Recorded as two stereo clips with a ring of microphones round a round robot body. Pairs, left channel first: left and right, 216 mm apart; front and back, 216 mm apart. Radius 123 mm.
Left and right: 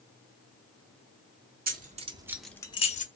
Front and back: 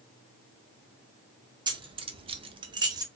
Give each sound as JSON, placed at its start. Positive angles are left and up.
{"t": 1.7, "sound": "keys jangling", "azimuth_deg": -115, "distance_m": 0.7}